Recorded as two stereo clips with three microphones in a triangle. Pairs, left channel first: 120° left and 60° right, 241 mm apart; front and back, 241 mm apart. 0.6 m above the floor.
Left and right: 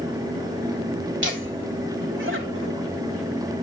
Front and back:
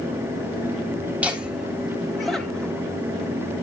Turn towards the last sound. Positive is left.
turn(degrees=-85)